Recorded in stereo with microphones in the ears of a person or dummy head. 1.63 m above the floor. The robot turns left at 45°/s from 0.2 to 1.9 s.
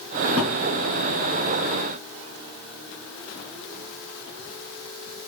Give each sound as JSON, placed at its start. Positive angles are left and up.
{"t": 0.4, "sound": "a thud", "side_deg": -45, "distance_m": 2.5}